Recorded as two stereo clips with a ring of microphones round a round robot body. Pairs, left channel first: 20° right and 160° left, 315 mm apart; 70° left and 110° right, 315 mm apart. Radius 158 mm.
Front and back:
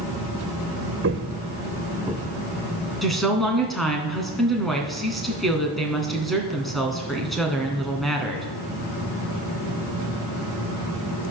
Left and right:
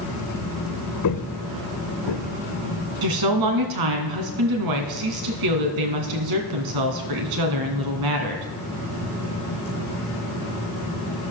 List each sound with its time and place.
1.0 s footsteps: 105° left, 1.5 m; by 2.3 s 65° left, 2.0 m
3.0 s a woman speaking: 110° right, 2.5 m